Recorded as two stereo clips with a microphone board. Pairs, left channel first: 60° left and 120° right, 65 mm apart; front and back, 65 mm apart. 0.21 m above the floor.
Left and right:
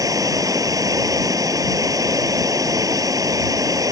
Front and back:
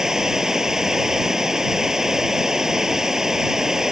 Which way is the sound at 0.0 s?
100° right.